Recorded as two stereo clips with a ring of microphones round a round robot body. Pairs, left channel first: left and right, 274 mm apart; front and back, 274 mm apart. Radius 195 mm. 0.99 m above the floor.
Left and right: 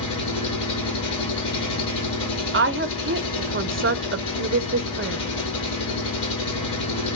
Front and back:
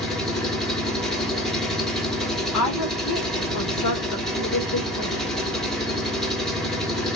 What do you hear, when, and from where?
0.0 s an engine running: 90° left, 1.7 m
2.5 s a woman speaking: 40° right, 0.7 m